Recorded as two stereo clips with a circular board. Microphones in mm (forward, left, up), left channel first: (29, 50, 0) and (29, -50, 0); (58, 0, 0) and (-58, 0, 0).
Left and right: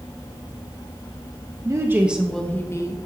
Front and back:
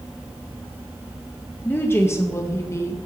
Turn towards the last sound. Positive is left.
turn(degrees=55)